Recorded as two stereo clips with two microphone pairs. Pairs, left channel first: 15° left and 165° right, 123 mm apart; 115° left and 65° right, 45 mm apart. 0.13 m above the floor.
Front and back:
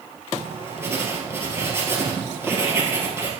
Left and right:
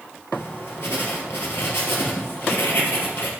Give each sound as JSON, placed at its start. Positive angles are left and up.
{"t": 0.3, "sound": "writing", "azimuth_deg": 125, "distance_m": 3.0}